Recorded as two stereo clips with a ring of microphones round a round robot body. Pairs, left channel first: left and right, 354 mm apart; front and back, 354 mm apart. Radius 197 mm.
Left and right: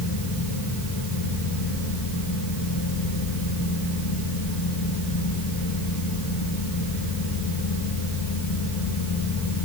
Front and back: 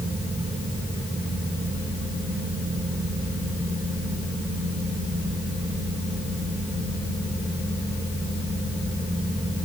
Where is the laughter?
No laughter in this recording.